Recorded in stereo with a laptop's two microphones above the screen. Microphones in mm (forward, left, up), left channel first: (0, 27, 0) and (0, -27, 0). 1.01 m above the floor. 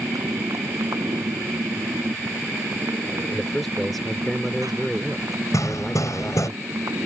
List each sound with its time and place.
0.0 s a motorcycle: 90° right
3.3 s a man speaking: centre (ahead or behind)
5.5 s hammering: 80° left